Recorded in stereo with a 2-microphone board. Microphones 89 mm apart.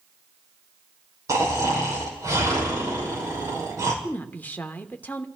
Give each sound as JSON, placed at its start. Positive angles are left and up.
{"t": 1.3, "sound": "snoring", "side_deg": -35, "distance_m": 4.0}
{"t": 4.0, "sound": "a woman speaking", "side_deg": 20, "distance_m": 0.9}